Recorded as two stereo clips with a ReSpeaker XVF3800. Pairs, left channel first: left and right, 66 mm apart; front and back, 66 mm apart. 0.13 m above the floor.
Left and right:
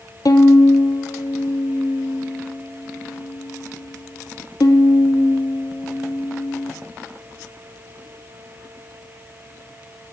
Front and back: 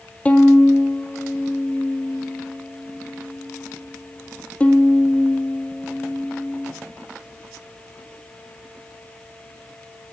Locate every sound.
0.2 s a violin: 70° left, 1.0 m